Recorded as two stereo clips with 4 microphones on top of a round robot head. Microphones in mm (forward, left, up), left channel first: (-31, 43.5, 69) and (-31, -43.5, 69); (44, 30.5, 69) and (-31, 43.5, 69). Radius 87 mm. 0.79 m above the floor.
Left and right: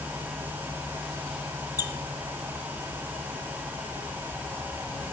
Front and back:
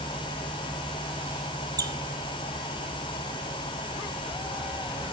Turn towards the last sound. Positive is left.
turn(degrees=135)